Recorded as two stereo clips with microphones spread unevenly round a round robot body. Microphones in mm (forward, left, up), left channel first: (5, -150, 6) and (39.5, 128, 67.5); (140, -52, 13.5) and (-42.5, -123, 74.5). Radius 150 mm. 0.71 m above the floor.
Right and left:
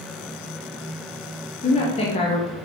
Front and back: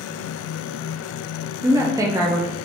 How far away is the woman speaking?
About 0.6 m.